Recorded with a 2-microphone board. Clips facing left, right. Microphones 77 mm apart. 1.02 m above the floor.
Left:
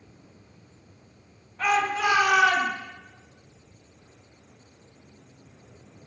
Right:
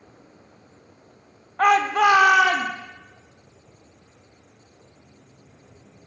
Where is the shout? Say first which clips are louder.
Right 7 dB; 55° right (ahead or behind), 1.2 m; by 2.7 s 65° right (ahead or behind), 2 m.